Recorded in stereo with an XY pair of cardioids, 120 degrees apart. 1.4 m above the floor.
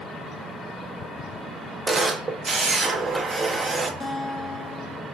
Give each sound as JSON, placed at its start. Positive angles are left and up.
{"t": 1.9, "sound": "a camera shutter", "azimuth_deg": -20, "distance_m": 0.5}
{"t": 4.0, "sound": "a guitar", "azimuth_deg": 20, "distance_m": 0.5}